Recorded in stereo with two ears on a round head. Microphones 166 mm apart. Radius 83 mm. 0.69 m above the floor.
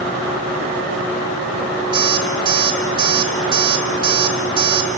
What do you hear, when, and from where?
1.9 s an alarm clock: 25° right (ahead or behind), 4.5 m